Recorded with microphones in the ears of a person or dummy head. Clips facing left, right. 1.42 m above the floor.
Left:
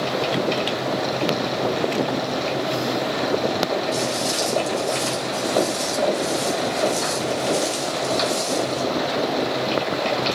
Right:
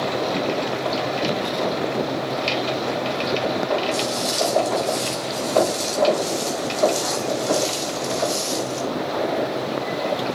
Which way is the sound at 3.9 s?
65° right (ahead or behind).